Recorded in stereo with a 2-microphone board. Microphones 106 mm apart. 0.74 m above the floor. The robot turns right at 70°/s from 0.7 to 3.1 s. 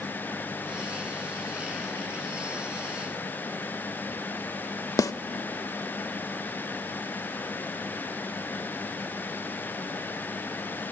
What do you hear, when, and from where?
5.0 s a snare drum: 35° left (ahead or behind), 0.5 m